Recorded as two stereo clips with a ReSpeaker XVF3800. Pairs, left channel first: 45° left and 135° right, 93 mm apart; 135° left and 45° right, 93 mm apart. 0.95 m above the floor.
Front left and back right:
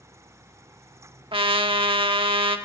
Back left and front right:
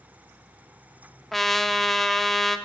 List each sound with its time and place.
1.3 s a trumpet: 140° right, 1.1 m